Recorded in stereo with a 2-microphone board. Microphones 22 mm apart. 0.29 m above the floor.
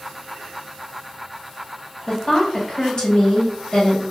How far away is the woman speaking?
About 1.1 m.